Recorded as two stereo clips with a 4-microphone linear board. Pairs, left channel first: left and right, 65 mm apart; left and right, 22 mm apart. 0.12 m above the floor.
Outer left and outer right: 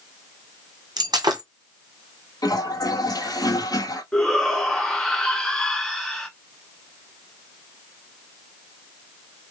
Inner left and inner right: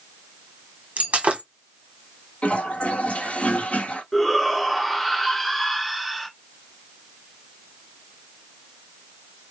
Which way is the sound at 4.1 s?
10° left (ahead or behind).